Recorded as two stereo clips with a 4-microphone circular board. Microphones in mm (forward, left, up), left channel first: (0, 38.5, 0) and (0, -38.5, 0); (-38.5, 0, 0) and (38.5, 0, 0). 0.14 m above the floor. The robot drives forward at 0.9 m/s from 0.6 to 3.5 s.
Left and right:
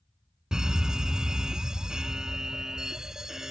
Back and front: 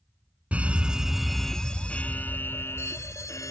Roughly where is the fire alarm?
Ahead right.